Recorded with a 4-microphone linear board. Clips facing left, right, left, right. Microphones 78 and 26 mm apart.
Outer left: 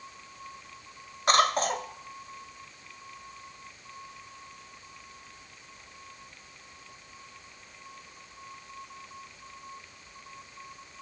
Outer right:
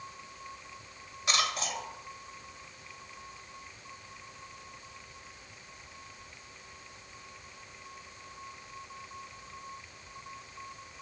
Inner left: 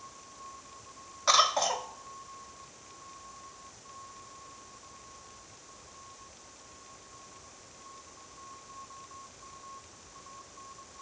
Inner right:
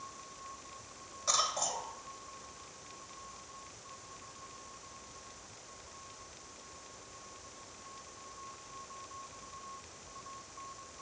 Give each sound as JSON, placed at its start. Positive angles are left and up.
{"t": 1.3, "sound": "a cough", "side_deg": 45, "distance_m": 1.8}